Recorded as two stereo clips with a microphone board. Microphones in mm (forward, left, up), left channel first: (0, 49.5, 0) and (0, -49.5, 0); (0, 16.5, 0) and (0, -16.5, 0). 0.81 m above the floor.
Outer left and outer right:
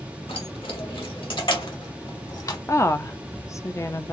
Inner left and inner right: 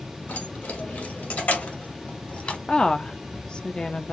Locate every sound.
0.3 s keys jangling: 70° left (ahead or behind), 2.5 m; by 2.6 s 40° left (ahead or behind), 1.4 m
2.7 s a woman speaking: 30° left (ahead or behind), 0.6 m